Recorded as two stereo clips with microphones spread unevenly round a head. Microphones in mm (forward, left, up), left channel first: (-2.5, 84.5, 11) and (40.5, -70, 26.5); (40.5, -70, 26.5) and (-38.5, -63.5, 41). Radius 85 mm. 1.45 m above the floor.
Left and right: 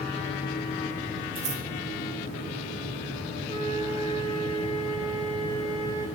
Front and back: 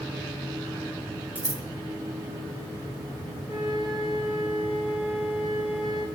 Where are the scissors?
125° right, 1.6 m.